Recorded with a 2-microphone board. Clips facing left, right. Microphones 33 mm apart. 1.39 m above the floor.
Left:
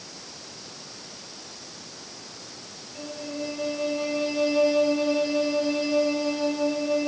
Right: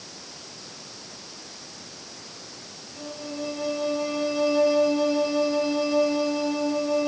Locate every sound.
3.0 s a violin: 55° left (ahead or behind), 4 m